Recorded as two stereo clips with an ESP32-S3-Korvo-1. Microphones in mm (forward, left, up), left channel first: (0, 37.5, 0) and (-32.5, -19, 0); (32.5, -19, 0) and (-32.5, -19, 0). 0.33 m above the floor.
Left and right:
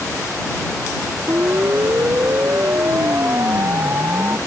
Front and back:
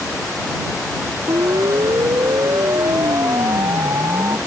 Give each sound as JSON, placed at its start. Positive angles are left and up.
{"t": 1.3, "sound": "a siren", "azimuth_deg": -170}